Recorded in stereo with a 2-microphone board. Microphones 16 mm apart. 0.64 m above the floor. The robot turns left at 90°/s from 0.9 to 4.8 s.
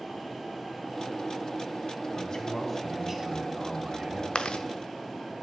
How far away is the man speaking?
About 2 m.